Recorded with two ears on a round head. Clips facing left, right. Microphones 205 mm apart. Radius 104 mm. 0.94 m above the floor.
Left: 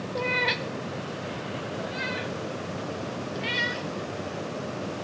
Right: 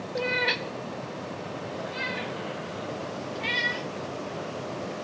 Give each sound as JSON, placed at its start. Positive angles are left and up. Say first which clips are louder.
{"t": 0.1, "sound": "a cat meowing", "louder": "right 1 dB", "side_deg": -10, "distance_m": 0.6}